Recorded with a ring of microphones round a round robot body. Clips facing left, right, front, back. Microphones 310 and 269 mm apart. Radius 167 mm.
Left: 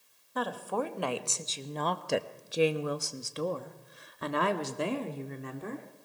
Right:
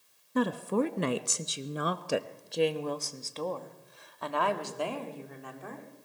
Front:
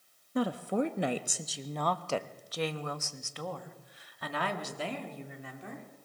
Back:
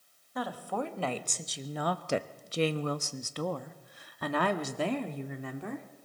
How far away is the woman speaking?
About 1.2 m.